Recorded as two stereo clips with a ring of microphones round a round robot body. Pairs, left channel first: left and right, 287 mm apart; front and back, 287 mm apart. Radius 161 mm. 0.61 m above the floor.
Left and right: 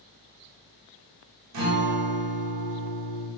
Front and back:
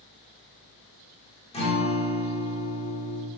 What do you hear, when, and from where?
1.5 s a guitar: 70° right, 1.3 m